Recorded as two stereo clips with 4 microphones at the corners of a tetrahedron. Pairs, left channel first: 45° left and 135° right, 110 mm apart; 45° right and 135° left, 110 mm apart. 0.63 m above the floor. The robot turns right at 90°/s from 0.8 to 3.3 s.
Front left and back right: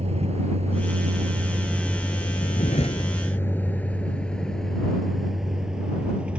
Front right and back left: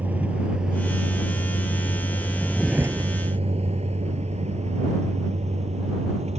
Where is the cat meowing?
No cat meowing in this recording.